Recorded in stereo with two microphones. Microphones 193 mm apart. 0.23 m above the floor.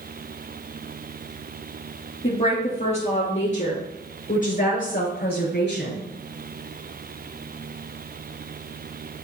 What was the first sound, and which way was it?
A woman speaking, 30° left (ahead or behind).